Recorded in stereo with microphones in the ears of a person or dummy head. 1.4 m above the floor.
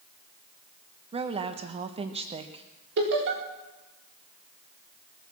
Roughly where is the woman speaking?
Right.